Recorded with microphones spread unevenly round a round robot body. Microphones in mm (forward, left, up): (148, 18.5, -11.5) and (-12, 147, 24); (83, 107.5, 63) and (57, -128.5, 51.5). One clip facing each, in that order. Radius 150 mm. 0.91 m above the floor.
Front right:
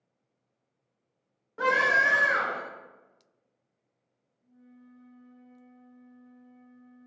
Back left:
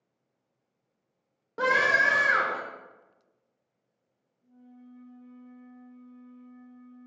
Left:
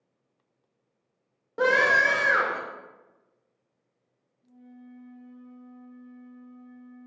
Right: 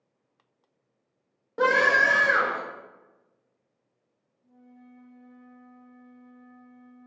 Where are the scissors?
I don't hear scissors.